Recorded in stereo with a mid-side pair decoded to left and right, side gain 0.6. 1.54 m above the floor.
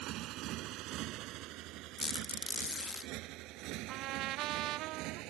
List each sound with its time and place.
0.0 s a motorcycle: 65° right; by 5.3 s 70° right
2.0 s a squeak: 20° left
3.9 s a trumpet: 65° right